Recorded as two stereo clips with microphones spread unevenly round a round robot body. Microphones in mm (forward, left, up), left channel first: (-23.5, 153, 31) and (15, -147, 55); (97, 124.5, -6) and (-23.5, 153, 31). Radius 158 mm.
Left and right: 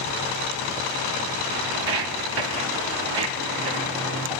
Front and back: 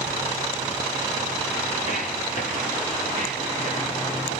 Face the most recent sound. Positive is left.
turn(degrees=-70)